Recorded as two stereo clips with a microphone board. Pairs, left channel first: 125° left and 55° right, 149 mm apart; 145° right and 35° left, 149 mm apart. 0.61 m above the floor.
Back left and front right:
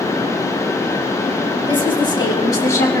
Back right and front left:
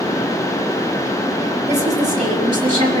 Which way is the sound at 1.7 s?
75° left.